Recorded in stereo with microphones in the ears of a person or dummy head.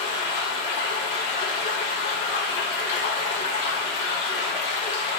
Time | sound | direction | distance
0.0 | running water | 30° left (ahead or behind) | 1.7 m